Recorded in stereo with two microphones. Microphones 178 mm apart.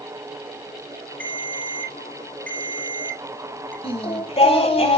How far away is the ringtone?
About 8 m.